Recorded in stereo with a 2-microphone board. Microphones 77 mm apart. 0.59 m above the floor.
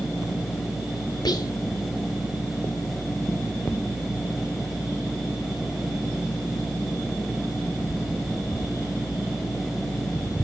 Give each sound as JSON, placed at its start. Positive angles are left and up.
{"t": 1.2, "sound": "whispering", "side_deg": 60, "distance_m": 2.0}